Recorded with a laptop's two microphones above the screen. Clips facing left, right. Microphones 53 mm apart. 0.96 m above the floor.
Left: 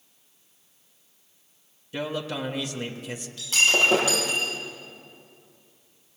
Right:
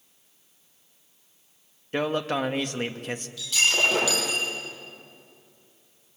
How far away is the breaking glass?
About 9 m.